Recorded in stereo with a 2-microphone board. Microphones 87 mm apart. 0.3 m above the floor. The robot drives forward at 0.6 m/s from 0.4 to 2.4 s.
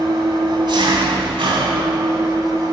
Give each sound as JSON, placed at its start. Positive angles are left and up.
{"t": 0.0, "sound": "an engine running", "side_deg": -50, "distance_m": 0.9}